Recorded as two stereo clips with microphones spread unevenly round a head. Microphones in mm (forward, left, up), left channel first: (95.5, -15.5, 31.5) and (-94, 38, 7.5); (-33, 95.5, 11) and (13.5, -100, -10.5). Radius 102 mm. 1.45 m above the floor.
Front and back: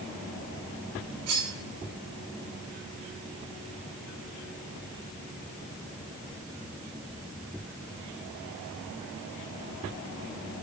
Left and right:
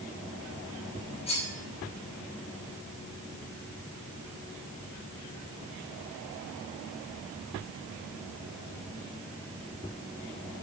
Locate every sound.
1.3 s cutlery clinking: 165° left, 5 m